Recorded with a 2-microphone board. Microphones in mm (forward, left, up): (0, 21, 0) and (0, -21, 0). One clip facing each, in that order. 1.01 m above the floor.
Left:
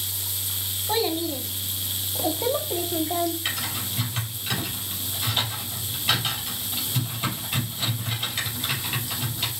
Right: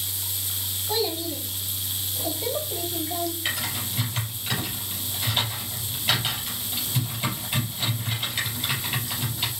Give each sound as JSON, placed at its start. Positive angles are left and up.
{"t": 0.9, "sound": "a child speaking", "side_deg": 30, "distance_m": 0.8}
{"t": 3.5, "sound": "typing on a keyboard", "side_deg": -5, "distance_m": 3.5}